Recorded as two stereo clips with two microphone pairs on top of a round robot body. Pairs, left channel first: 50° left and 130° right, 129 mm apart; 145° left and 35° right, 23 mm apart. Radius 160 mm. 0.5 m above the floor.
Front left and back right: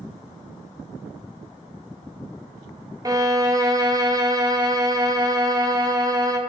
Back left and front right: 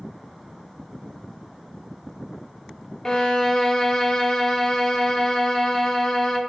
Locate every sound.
3.0 s a violin: 155° right, 0.6 m